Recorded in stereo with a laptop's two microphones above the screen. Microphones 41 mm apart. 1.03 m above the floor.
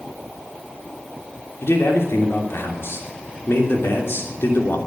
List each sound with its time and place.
1.6 s a man speaking: 80° left, 3 m